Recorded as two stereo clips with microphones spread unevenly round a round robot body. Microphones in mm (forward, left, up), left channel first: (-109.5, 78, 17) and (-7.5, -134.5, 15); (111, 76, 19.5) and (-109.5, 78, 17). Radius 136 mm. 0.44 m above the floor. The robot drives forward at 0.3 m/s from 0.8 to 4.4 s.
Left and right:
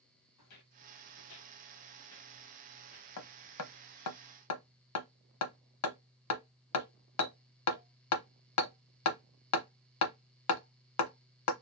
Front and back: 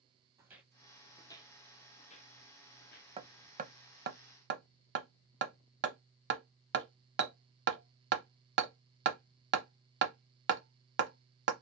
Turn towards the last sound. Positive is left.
turn(degrees=135)